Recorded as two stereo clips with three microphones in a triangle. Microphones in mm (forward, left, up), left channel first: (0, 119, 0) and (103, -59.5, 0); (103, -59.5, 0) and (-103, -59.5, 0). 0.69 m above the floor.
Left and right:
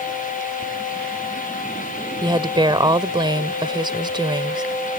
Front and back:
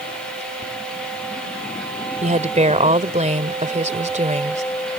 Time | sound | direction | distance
2.2 | a woman speaking | 125° right | ?